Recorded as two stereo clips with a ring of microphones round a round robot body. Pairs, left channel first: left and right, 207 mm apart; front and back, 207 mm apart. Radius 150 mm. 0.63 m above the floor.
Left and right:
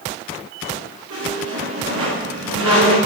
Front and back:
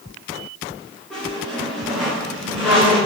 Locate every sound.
1.1 s a squeak: 90° right, 7.5 m